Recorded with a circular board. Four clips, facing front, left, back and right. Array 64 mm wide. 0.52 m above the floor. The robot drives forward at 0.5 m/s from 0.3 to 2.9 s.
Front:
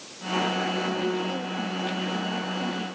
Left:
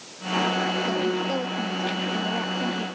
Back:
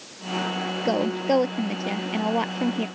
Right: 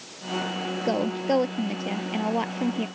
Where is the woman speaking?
155° right.